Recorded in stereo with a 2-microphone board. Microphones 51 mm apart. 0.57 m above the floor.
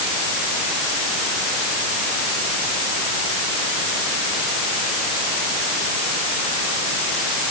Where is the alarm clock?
I don't hear an alarm clock.